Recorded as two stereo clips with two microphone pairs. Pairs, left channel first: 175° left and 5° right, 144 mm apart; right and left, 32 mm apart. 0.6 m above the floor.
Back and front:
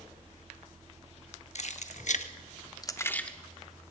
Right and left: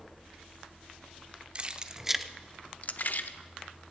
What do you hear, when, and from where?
1.6 s keys jangling: 140° left, 0.8 m; by 3.9 s 90° right, 1.1 m